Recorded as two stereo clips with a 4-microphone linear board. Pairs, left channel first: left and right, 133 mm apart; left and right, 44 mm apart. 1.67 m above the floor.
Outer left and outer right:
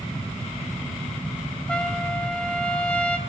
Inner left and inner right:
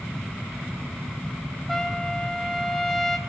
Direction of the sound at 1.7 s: 10° left (ahead or behind).